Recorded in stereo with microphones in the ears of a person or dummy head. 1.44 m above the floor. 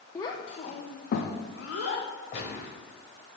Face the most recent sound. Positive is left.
turn(degrees=45)  # may be behind; listen again after turning